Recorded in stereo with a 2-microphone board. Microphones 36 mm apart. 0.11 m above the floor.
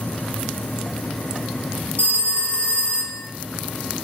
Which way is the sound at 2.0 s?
35° left (ahead or behind).